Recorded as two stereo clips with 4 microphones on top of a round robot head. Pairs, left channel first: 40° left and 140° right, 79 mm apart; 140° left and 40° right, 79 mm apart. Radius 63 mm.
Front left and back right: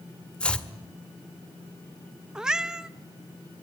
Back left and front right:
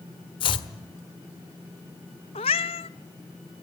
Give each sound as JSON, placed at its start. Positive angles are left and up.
{"t": 0.4, "sound": "chopping", "azimuth_deg": 115, "distance_m": 1.4}
{"t": 2.4, "sound": "a cat meowing", "azimuth_deg": 135, "distance_m": 0.7}